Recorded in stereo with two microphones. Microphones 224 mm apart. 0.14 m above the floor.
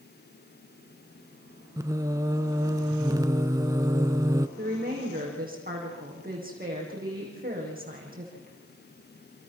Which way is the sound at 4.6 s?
40° right (ahead or behind).